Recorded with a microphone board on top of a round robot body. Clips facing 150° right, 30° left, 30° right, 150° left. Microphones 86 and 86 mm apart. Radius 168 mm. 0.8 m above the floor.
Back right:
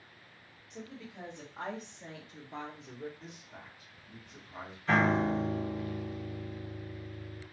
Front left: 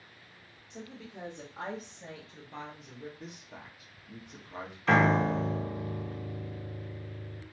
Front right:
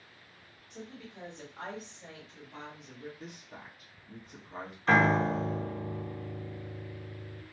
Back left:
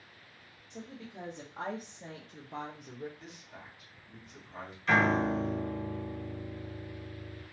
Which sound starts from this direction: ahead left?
A piano, at 4.9 s.